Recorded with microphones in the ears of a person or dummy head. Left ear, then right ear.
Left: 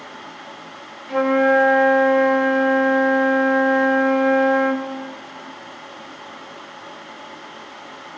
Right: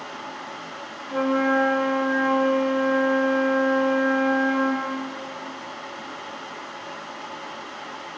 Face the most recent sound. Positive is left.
turn(degrees=35)  # may be behind; listen again after turning